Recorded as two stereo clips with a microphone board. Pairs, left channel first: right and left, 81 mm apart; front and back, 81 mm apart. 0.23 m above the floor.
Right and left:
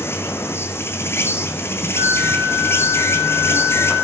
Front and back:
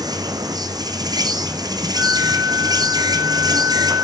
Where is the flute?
115° left, 4 m.